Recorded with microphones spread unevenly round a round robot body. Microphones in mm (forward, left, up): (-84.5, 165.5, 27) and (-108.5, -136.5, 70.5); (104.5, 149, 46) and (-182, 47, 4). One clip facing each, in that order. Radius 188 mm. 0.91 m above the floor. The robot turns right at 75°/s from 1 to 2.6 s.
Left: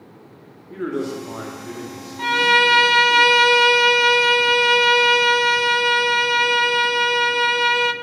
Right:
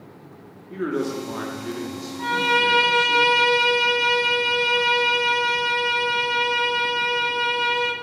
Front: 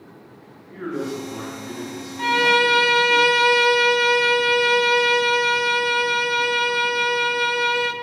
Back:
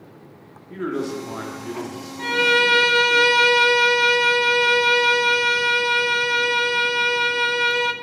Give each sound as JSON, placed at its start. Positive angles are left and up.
{"t": 0.7, "sound": "a man speaking", "azimuth_deg": 175, "distance_m": 2.5}
{"t": 2.2, "sound": "a violin", "azimuth_deg": 90, "distance_m": 0.7}